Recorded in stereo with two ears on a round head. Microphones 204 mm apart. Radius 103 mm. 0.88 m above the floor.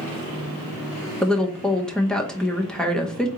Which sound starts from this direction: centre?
A woman speaking, at 1.2 s.